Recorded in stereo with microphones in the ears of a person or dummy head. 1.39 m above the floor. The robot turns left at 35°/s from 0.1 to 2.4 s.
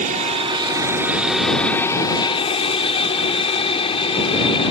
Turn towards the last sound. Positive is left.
turn(degrees=35)  # may be behind; listen again after turning